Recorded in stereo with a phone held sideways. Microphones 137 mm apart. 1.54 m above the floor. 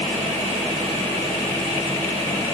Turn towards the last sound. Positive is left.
No sound to turn to.